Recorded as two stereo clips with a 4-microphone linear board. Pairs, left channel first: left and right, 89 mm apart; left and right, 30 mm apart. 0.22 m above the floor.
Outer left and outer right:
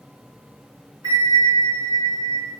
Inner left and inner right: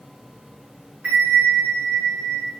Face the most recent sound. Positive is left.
turn(degrees=-45)  # may be behind; listen again after turning